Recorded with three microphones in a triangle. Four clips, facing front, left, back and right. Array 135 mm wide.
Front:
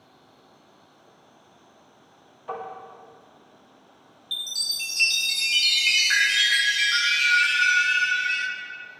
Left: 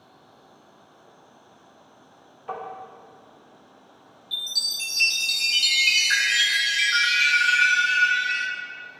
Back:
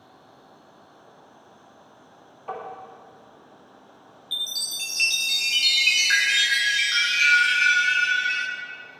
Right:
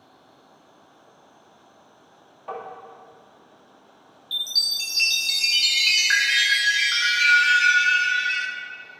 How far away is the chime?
About 0.8 m.